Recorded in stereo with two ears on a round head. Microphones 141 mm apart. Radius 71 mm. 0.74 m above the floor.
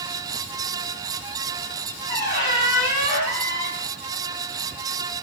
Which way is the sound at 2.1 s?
25° left (ahead or behind).